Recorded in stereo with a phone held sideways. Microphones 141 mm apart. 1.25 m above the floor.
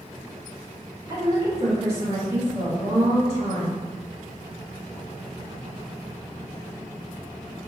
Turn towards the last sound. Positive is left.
turn(degrees=-50)  # may be behind; listen again after turning